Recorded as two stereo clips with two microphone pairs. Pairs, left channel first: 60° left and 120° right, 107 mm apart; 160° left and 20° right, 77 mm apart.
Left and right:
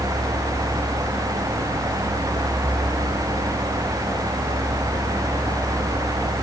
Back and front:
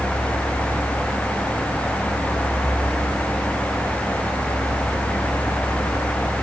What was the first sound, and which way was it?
Only background noise.